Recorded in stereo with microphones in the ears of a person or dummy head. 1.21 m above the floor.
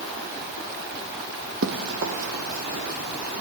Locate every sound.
1.6 s running footsteps: 65° right (ahead or behind), 3 m; by 3.4 s 45° right (ahead or behind), 2.5 m